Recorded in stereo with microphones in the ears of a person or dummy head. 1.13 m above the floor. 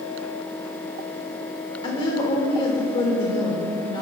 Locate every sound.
1.8 s a woman speaking: 30° left (ahead or behind), 3.5 m